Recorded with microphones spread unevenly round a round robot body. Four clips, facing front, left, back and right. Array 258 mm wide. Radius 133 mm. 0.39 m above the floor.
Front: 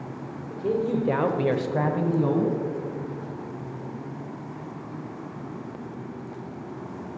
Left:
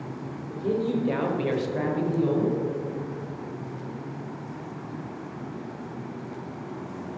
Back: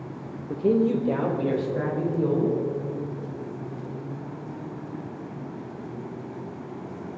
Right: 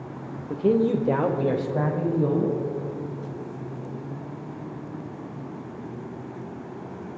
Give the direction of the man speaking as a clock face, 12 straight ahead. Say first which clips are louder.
Right 5 dB, back 4 dB; 4 o'clock.